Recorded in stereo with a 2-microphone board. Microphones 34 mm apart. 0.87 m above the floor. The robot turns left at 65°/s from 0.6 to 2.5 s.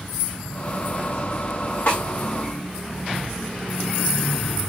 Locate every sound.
1.9 s a snare drum: 70° left (ahead or behind), 2 m; by 2.0 s 60° left (ahead or behind), 2 m